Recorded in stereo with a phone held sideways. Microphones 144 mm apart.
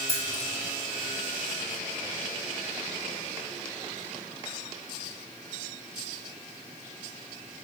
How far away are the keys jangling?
About 2.0 m.